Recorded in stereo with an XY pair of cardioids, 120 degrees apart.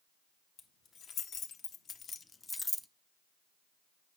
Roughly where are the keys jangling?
Ahead left.